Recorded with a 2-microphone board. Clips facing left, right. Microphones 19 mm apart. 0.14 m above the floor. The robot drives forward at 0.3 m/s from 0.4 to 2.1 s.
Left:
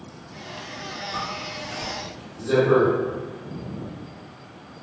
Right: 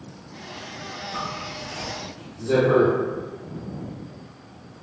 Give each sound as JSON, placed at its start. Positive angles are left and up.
{"t": 1.1, "sound": "a zipper", "side_deg": 40, "distance_m": 2.0}